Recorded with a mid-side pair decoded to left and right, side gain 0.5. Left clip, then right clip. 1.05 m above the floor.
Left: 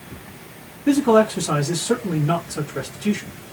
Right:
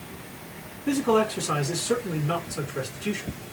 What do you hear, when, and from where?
0.9 s a man speaking: 60° left, 1.3 m